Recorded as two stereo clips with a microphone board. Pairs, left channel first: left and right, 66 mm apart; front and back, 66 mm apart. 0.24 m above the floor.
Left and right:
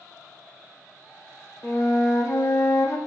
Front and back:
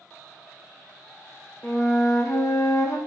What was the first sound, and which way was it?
A flute, 45° left.